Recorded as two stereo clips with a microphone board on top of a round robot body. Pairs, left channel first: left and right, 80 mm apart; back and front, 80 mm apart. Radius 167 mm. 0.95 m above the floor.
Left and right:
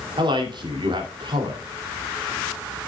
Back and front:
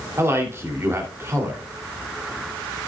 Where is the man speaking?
60° right, 3 m.